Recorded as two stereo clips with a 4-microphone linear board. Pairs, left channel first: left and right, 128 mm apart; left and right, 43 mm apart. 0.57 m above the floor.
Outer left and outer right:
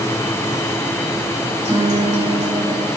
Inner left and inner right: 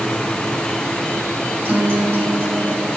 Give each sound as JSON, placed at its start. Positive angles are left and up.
{"t": 1.6, "sound": "a guitar", "side_deg": -60, "distance_m": 2.5}